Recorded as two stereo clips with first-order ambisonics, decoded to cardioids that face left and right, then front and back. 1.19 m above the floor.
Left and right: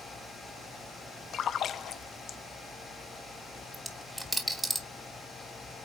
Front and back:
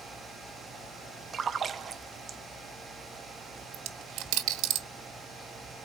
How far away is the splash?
About 0.5 m.